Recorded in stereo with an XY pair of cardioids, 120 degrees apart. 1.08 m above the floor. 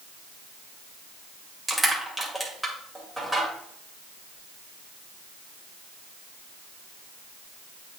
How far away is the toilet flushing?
I don't hear a toilet flushing.